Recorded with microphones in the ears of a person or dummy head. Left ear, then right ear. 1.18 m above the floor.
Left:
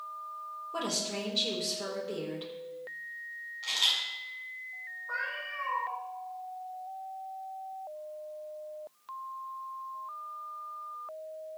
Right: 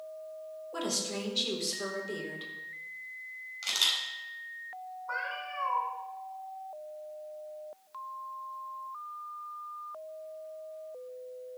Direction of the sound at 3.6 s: 65° right (ahead or behind).